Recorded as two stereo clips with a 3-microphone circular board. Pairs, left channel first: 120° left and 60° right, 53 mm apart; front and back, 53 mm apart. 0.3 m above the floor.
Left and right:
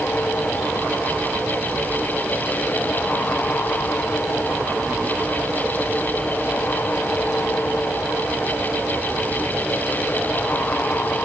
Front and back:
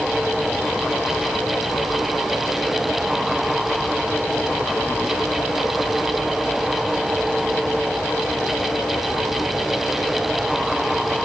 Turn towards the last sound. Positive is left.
No sound to turn to.